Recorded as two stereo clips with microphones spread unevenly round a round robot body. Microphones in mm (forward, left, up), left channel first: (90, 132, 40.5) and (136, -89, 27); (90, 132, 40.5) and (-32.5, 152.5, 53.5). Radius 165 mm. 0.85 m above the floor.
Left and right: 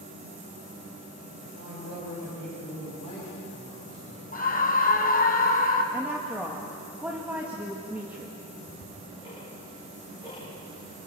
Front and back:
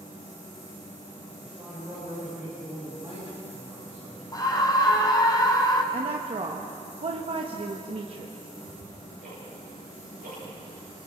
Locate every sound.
1.4 s a man speaking: 105° right, 5.5 m; by 4.4 s 115° right, 9 m
4.3 s a scream: 50° left, 5.5 m
5.9 s a woman speaking: 160° right, 1.4 m
8.5 s ticking: 160° right, 7.5 m